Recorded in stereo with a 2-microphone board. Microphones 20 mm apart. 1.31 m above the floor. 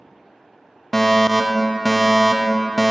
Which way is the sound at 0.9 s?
10° left (ahead or behind).